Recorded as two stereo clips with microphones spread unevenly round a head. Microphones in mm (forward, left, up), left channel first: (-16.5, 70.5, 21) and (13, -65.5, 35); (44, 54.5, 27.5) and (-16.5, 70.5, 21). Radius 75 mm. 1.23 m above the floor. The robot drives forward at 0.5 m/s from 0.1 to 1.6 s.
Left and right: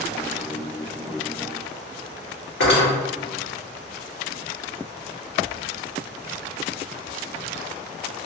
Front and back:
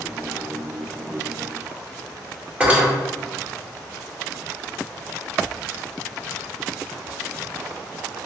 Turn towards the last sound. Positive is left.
turn(degrees=105)